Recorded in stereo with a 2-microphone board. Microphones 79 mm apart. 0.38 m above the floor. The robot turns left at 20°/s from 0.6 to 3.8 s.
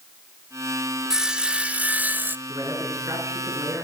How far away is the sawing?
About 0.9 m.